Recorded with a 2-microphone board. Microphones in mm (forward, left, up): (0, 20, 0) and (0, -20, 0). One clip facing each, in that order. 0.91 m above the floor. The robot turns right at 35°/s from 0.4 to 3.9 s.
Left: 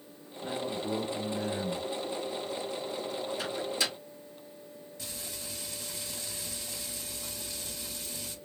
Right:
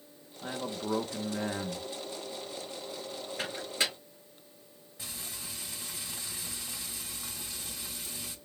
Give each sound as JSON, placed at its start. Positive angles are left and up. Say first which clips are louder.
{"t": 0.4, "sound": "a man speaking", "louder": "left 2 dB", "azimuth_deg": -125, "distance_m": 1.0}
{"t": 3.4, "sound": "a microwave", "louder": "right 2 dB", "side_deg": -50, "distance_m": 2.5}
{"t": 5.0, "sound": "frying", "louder": "even", "side_deg": -20, "distance_m": 3.0}